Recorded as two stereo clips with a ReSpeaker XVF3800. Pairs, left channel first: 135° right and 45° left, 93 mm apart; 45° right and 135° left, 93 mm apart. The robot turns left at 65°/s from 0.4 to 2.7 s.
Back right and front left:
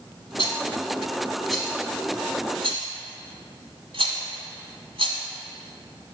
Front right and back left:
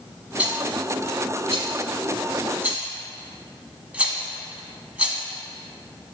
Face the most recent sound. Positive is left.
turn(degrees=60)